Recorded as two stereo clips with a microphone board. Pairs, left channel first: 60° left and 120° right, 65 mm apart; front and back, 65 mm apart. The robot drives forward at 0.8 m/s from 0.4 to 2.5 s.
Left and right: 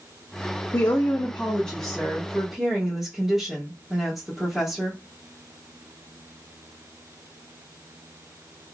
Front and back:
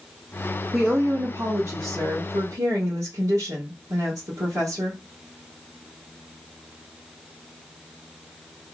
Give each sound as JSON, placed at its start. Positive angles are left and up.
{"t": 0.7, "sound": "a woman speaking", "azimuth_deg": 95, "distance_m": 0.7}